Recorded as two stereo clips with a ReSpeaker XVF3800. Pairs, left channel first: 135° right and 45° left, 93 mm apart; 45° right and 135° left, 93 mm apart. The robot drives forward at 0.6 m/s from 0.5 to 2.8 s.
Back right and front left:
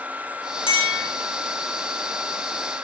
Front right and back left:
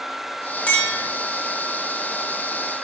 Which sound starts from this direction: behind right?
A clink, at 0.7 s.